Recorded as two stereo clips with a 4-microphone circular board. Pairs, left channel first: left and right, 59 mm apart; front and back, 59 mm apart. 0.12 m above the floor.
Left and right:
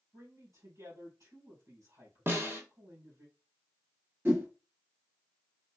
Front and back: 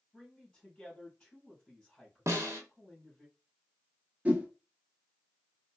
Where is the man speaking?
80° right, 3 m.